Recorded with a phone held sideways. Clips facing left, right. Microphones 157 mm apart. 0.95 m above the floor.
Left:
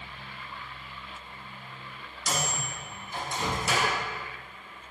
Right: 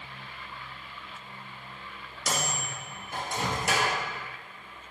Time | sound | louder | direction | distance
2.3 | a microwave | even | 60° right (ahead or behind) | 0.8 m